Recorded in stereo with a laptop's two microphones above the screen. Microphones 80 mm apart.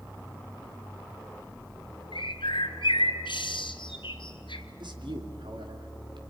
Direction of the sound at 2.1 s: 85° left.